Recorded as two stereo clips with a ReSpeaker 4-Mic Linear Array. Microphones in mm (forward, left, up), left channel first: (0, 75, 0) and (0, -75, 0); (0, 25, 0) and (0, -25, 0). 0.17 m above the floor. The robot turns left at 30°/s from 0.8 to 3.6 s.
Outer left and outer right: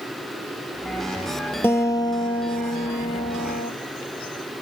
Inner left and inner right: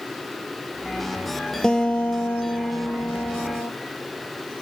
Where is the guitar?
165° left, 1.3 m; by 3.7 s 105° left, 1.3 m.